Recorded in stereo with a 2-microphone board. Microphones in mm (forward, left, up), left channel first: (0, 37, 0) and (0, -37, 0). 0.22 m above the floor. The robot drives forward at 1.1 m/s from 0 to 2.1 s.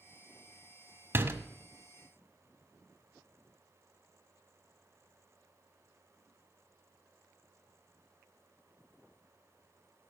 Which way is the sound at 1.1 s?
35° right (ahead or behind).